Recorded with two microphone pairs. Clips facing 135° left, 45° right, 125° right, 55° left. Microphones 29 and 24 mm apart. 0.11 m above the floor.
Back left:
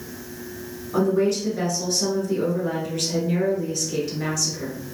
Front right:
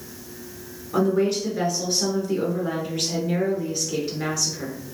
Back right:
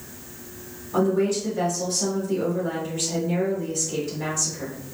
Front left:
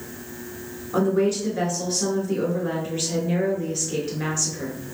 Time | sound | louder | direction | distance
0.9 | a woman speaking | even, front left 1 dB | 20° left | 1.3 m